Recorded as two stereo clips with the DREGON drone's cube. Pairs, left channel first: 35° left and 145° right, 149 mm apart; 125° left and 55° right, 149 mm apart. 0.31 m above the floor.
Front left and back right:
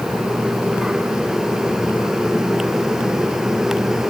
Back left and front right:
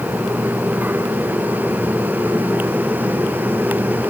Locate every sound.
Only background noise.